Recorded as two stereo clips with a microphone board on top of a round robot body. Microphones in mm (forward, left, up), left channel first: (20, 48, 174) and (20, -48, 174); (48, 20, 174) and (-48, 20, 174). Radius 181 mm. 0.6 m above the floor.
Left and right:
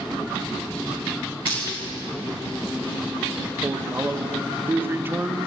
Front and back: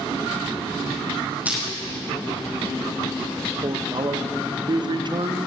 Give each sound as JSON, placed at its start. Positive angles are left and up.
{"t": 1.4, "sound": "crushing", "azimuth_deg": 110, "distance_m": 5.0}
{"t": 3.6, "sound": "a man speaking", "azimuth_deg": -155, "distance_m": 1.0}